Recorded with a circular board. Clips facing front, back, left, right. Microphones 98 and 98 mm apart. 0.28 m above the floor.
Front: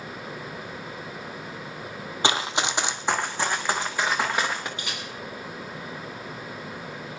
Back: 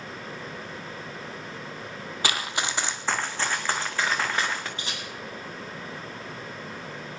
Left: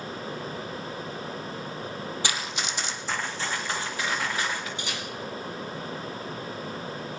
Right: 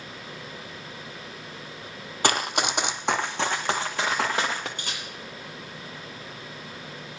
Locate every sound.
2.2 s running footsteps: 60° right, 0.6 m; by 4.7 s 75° right, 2.5 m
4.8 s a camera shutter: 125° right, 5.5 m